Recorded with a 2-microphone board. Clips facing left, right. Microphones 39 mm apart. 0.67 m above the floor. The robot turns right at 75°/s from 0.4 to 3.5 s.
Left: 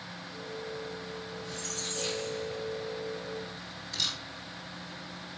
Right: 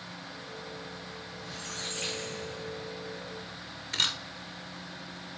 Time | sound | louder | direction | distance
1.4 | a squeak | left 1 dB | straight behind | 2 m
3.9 | a camera shutter | right 4 dB | 55° right (ahead or behind) | 1.6 m